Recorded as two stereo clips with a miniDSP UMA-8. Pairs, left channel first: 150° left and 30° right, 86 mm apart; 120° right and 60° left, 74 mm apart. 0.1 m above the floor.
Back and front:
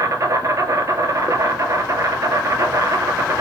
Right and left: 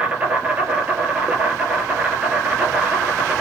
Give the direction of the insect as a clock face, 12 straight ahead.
12 o'clock.